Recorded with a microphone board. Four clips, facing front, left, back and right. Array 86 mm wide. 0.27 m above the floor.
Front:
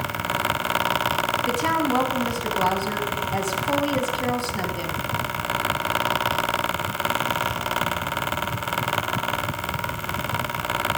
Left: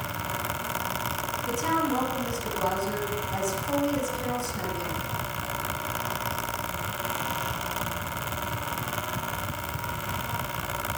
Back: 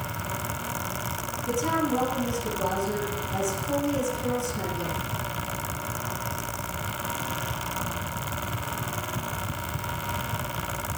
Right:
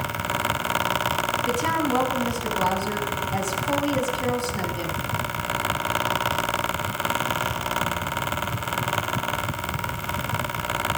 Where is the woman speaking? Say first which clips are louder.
Right 1 dB, front 1 dB; 30° right, 1.6 m.